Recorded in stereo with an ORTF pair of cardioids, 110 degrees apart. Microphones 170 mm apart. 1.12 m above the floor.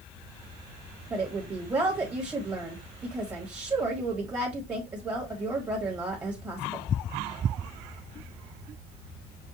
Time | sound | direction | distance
1.1 | a woman speaking | 20° right | 1.5 m